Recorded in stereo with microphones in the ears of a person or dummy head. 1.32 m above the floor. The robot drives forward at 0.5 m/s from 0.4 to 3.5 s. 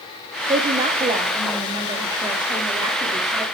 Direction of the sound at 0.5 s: 30° right (ahead or behind).